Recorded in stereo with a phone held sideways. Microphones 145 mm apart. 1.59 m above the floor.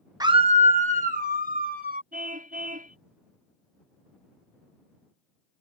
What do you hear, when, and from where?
0.2 s a scream: 25° right (ahead or behind); by 2.0 s 75° right (ahead or behind)
2.1 s a car horn: 70° right (ahead or behind)